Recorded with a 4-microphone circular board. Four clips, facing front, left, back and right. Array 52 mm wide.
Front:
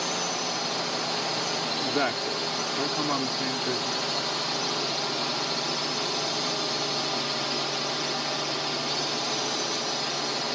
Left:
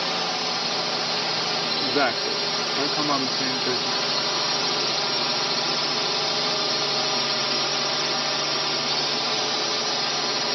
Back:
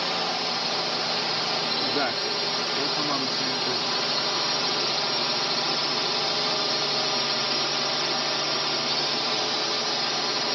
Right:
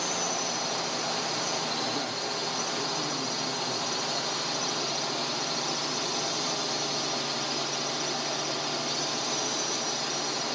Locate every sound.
0.0 s a drone: 110° left
1.8 s a woman speaking: 85° left